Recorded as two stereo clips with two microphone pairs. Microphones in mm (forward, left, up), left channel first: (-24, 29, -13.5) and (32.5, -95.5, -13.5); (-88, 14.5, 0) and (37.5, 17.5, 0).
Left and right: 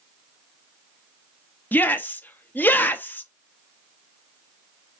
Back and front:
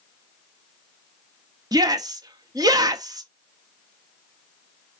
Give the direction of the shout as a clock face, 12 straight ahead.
11 o'clock.